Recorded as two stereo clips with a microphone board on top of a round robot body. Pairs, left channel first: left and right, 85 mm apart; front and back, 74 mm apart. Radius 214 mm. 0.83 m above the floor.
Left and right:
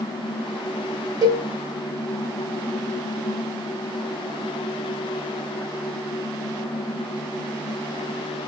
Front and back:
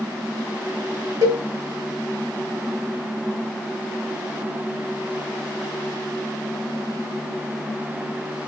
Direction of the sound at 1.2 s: 135° right.